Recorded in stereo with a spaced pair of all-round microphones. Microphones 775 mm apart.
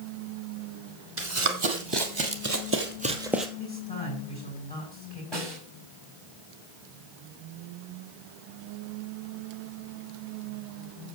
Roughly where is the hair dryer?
No hair dryer in this recording.